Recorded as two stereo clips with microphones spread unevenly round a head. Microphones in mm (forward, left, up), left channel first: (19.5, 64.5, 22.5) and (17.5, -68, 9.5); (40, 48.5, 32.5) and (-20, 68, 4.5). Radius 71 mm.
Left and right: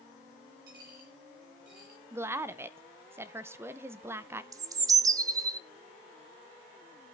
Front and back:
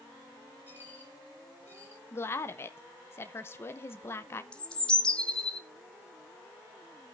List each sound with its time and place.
0.7 s a dropped coin: 120° right, 7 m
2.1 s a woman speaking: 80° right, 0.8 m
4.5 s a bird: 35° right, 0.7 m